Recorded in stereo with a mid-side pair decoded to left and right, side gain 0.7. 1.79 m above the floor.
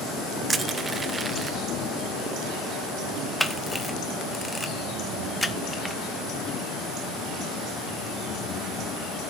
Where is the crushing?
20° right, 1.2 m.